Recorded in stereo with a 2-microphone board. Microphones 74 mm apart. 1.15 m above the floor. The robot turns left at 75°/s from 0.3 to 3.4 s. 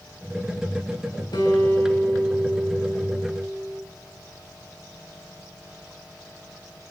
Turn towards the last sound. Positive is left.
turn(degrees=-75)